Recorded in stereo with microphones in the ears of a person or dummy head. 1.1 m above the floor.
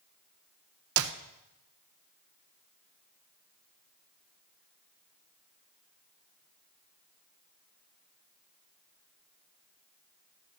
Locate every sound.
1.0 s a clap: 70° right (ahead or behind), 0.6 m